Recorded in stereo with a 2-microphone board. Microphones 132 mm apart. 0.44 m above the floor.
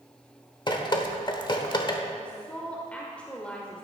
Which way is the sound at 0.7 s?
35° left (ahead or behind).